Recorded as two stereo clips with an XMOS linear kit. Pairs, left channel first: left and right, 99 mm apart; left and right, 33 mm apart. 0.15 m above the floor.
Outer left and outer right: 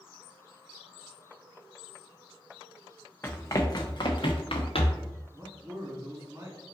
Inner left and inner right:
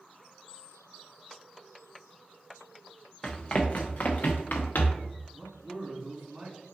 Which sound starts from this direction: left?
Running footsteps, at 3.2 s.